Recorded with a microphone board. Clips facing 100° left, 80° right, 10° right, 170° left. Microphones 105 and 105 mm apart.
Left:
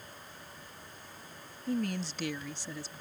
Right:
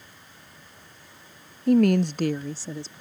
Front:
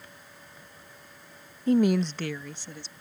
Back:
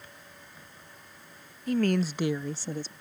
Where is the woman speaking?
70° right; by 2.9 s 145° right.